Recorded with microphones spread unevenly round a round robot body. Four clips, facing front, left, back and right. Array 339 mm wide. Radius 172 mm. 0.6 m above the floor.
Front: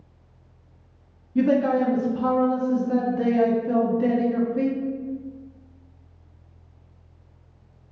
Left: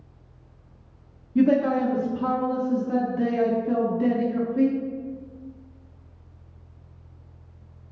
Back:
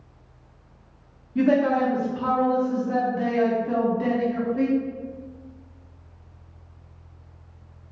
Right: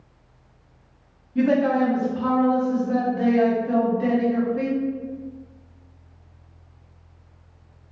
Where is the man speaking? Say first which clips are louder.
Right 1 dB, even; 90° left, 0.7 m.